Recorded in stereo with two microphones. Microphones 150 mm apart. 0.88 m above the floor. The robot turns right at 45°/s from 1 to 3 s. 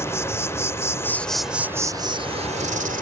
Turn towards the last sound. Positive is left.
turn(degrees=-110)